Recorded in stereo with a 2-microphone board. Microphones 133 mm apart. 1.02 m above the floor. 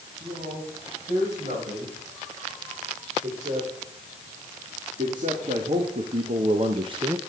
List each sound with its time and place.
0.2 s a man speaking: 75° right (ahead or behind), 6.5 m; by 7.2 s 20° right (ahead or behind), 0.7 m